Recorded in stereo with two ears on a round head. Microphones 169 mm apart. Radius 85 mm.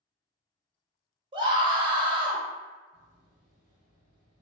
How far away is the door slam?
About 1.2 m.